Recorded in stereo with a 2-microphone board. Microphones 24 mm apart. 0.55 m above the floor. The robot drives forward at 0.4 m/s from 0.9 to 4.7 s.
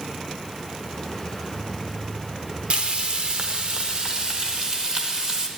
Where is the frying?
55° right (ahead or behind), 1.1 m; by 5.5 s 40° right (ahead or behind), 1.5 m.